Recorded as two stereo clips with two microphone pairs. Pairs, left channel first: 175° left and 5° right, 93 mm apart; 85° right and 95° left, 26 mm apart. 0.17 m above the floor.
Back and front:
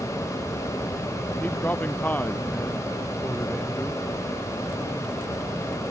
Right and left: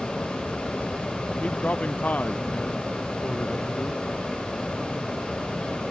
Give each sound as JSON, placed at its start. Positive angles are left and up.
{"t": 1.4, "sound": "a man speaking", "azimuth_deg": -115}